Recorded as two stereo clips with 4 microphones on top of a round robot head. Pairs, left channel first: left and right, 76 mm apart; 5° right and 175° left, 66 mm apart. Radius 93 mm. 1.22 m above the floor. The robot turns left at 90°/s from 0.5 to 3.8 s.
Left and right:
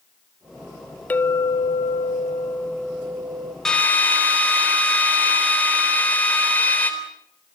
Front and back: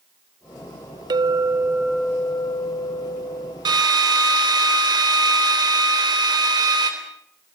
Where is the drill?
175° left, 3.5 m; by 6.9 s 160° left, 3.5 m.